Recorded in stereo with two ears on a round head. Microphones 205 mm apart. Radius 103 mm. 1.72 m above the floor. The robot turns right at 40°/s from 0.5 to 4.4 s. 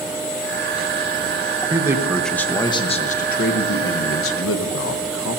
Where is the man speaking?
20° right, 1.1 m; by 5.4 s 90° left, 1.1 m.